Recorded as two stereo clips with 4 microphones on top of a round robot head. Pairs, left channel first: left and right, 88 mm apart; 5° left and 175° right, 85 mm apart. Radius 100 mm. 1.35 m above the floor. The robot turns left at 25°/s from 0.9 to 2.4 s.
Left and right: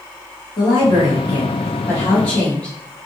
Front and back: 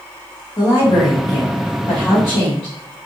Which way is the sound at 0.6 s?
55° left.